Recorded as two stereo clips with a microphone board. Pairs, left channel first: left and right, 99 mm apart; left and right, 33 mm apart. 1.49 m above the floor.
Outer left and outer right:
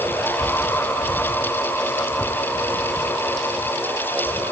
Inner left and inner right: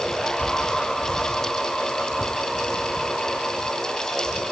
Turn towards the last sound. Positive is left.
No sound to turn to.